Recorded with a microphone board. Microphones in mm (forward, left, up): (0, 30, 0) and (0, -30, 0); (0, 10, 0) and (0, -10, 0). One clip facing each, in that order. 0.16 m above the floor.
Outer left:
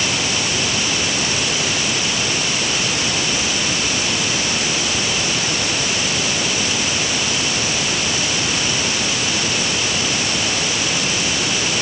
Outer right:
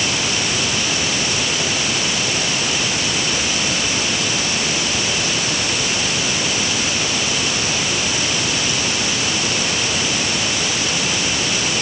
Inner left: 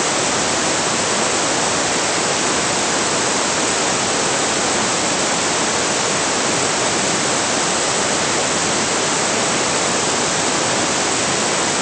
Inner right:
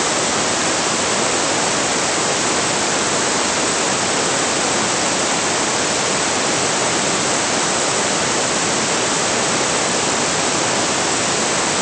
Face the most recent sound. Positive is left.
No sound to turn to.